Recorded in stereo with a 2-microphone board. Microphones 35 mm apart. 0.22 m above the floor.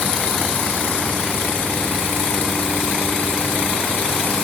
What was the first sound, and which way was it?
Only background noise.